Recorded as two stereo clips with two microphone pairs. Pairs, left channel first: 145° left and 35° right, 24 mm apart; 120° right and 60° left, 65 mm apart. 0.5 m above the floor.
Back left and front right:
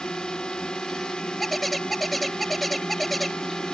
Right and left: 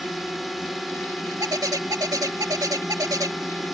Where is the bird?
60° left.